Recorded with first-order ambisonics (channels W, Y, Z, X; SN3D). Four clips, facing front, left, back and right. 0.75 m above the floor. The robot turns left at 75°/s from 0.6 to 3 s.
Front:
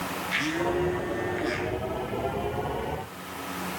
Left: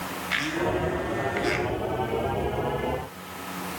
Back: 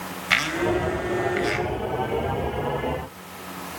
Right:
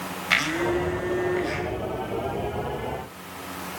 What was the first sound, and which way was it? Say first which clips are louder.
A blender: right 4 dB, back 6 dB; 150° right.